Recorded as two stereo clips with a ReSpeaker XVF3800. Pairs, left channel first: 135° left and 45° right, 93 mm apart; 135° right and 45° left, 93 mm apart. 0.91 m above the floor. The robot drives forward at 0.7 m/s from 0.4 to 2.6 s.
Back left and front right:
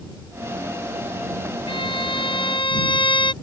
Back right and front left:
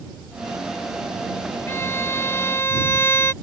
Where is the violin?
160° left.